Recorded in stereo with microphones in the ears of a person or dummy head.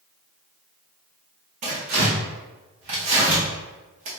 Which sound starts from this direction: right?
Tearing paper, at 1.6 s.